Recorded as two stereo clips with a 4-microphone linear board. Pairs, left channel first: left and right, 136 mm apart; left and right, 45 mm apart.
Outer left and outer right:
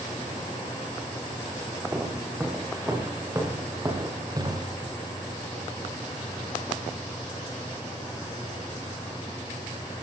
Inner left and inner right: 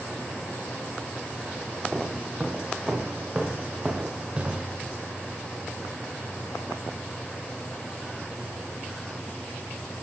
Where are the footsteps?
10° right (ahead or behind), 6.5 m; by 4.8 s 30° right (ahead or behind), 5 m.